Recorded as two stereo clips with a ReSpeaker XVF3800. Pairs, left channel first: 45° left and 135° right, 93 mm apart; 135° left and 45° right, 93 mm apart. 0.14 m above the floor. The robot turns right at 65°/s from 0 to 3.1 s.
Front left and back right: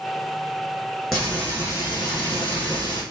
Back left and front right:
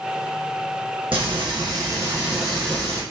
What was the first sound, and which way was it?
Frying, 50° right.